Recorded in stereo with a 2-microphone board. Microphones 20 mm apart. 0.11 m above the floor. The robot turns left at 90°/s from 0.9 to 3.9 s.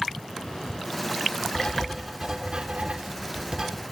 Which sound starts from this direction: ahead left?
Writing, at 1.6 s.